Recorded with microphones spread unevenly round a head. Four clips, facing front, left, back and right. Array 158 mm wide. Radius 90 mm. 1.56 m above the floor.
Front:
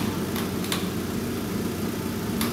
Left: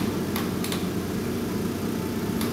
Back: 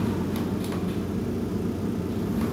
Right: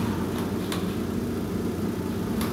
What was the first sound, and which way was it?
Only background noise.